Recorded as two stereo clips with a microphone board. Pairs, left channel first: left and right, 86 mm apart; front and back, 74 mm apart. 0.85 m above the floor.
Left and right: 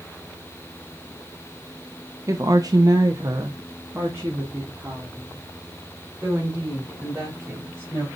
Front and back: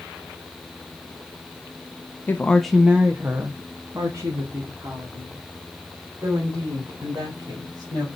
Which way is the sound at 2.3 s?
55° right.